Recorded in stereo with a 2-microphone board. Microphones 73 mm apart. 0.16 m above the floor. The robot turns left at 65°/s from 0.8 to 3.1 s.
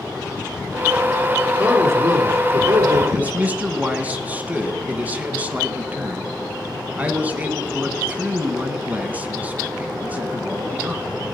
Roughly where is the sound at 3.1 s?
Centre.